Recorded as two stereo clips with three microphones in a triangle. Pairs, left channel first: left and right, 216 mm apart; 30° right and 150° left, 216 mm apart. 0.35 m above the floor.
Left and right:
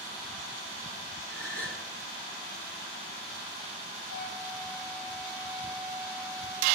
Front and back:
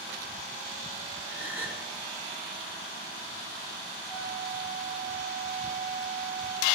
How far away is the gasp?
About 3.5 m.